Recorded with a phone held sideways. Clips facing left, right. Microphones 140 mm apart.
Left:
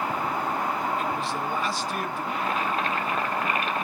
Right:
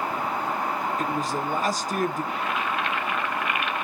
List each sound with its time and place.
1.0 s a man speaking: 40° right (ahead or behind), 0.7 m
2.3 s boiling: 35° left (ahead or behind), 0.7 m